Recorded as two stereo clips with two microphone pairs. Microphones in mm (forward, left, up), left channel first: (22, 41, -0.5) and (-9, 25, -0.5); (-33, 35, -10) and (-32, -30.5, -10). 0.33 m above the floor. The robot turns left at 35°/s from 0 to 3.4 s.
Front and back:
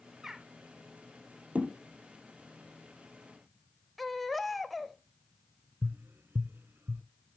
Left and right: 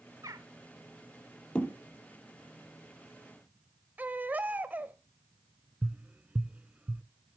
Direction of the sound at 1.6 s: 165° left.